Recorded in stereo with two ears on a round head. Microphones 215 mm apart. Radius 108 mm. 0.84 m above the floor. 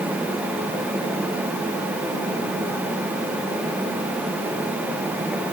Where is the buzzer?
No buzzer in this recording.